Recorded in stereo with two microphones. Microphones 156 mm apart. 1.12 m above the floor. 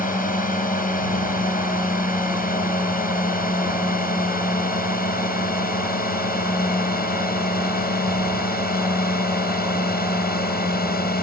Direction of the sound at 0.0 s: 65° left (ahead or behind).